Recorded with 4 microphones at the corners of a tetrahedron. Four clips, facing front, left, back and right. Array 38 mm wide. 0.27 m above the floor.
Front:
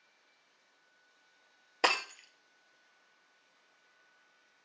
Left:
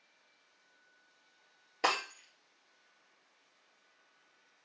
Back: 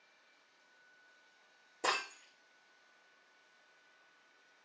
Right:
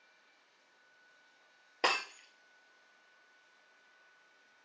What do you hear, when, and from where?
1.8 s breaking glass: 10° right, 2.0 m